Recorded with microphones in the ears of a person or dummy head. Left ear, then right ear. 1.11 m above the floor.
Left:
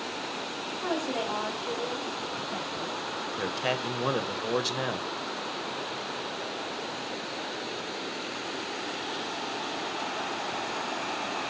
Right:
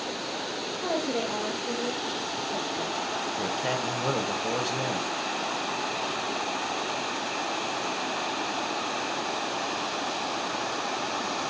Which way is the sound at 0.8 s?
35° left (ahead or behind).